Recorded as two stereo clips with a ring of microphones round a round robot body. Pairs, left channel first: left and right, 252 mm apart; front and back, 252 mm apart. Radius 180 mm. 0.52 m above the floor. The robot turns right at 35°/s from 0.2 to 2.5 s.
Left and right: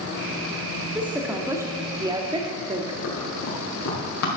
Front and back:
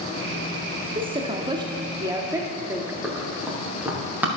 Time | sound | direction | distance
0.9 | a woman speaking | 170° right | 0.7 m
3.0 | running footsteps | 95° left | 3.5 m